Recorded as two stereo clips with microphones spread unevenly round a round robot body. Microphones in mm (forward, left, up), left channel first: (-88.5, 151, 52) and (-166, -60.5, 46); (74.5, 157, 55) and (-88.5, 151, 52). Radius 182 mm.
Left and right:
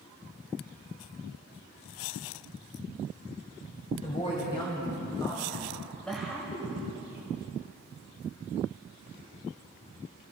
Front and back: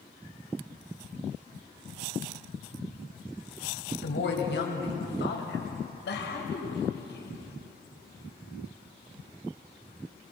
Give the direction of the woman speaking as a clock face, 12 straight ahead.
12 o'clock.